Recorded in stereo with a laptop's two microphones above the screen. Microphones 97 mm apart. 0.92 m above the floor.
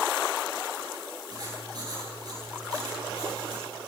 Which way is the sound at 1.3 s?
45° right (ahead or behind).